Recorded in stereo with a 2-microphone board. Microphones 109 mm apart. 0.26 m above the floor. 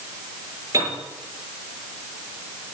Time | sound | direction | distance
0.7 | a piano | 30° right (ahead or behind) | 7 m